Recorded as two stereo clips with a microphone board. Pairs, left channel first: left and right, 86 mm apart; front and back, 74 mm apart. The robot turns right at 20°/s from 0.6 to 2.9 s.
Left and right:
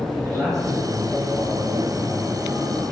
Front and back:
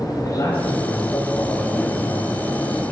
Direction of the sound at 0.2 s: 35° right.